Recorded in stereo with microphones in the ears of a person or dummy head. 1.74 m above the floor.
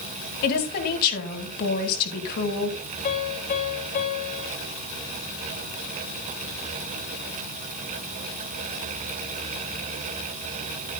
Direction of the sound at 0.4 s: 50° left (ahead or behind).